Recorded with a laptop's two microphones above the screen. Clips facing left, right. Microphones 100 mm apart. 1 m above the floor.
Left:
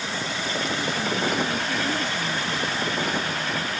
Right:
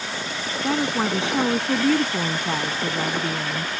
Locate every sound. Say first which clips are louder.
0.6 s a woman speaking: right 8 dB; 85° right